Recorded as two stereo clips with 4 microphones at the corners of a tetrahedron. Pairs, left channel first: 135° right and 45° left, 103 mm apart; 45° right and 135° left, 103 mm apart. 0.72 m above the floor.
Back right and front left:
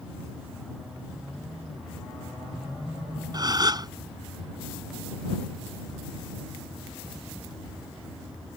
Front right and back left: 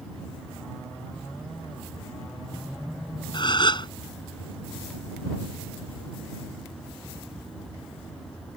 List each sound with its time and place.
3.3 s a gasp: 5° right